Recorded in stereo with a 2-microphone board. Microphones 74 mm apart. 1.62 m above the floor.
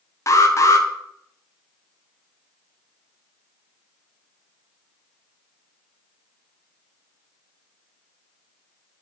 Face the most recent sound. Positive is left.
turn(degrees=40)  # may be behind; listen again after turning